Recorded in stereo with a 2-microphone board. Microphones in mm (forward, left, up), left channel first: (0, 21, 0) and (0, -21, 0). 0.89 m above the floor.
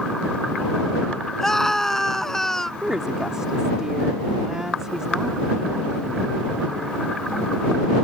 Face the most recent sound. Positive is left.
turn(degrees=-20)  # may be behind; listen again after turning